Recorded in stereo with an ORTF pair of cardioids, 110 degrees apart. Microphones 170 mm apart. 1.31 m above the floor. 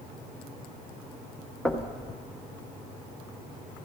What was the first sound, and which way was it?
Knocking, straight ahead.